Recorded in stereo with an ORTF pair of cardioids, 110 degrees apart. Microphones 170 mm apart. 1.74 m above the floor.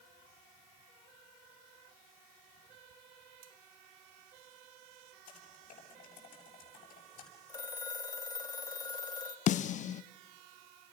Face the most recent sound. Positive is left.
turn(degrees=45)